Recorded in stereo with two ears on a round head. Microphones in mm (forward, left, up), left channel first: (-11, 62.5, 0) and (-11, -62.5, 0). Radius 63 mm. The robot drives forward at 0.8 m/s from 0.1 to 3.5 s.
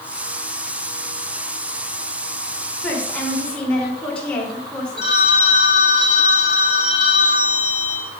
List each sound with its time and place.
2.8 s a woman speaking: 10° left (ahead or behind), 3.5 m
5.0 s a phone ringing: 30° right (ahead or behind), 1.9 m